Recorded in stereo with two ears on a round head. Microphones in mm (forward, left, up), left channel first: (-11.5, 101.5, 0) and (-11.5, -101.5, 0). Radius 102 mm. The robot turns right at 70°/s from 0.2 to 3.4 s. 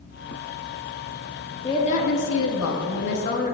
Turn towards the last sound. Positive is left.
turn(degrees=140)